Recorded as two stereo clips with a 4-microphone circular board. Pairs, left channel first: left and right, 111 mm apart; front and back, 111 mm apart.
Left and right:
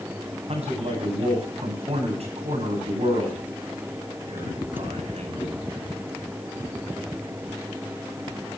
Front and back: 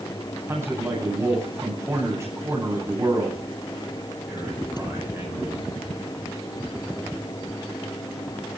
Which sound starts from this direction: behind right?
A man speaking, at 0.5 s.